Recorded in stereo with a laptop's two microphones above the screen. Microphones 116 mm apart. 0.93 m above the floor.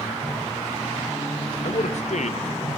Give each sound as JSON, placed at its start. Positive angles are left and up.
{"t": 1.6, "sound": "a man speaking", "side_deg": 70, "distance_m": 0.5}